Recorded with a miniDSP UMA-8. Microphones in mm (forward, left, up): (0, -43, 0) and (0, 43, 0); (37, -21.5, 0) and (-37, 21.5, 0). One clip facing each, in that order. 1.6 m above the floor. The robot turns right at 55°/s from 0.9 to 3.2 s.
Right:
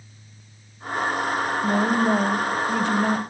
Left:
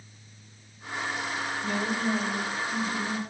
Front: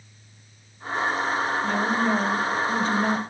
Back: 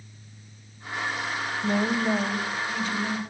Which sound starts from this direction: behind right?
A woman speaking, at 1.6 s.